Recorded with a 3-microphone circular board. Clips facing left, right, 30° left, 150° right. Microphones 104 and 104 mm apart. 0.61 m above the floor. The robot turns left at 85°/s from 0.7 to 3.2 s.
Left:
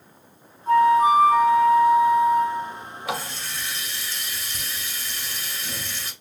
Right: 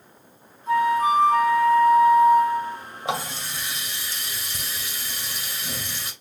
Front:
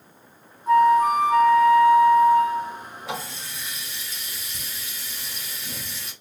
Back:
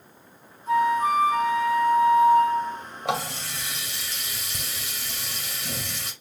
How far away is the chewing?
I don't hear chewing.